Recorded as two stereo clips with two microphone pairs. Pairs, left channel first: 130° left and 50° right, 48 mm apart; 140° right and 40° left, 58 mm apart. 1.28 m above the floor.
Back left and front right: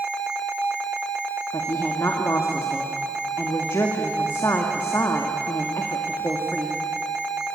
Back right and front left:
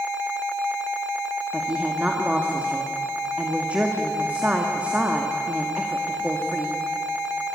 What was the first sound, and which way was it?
A woman speaking, 105° left.